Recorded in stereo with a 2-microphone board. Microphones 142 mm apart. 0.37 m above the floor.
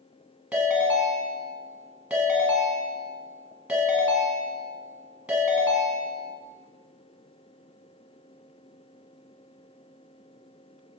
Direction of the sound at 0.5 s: 5° right (ahead or behind).